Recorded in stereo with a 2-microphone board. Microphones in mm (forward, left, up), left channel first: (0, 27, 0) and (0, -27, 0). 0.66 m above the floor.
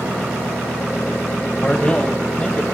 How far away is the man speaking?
About 2.5 m.